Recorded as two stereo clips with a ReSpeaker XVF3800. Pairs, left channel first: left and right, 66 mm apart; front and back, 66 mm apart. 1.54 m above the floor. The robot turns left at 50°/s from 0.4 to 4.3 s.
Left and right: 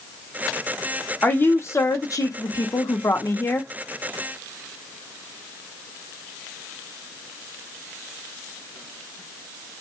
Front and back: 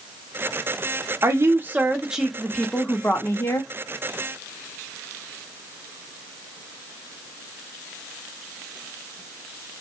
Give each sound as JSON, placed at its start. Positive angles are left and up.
{"t": 1.2, "sound": "a woman speaking", "azimuth_deg": 150, "distance_m": 0.7}